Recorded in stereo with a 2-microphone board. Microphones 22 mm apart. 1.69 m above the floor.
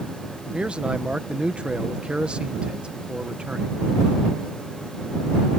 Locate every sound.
0.5 s a man speaking: 55° right (ahead or behind)